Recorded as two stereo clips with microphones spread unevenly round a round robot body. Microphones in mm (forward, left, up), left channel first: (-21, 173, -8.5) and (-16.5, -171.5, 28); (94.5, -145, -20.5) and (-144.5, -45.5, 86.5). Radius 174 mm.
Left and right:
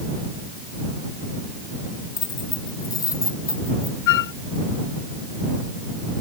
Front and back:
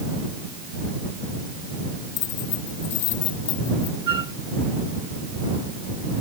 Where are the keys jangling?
10° left.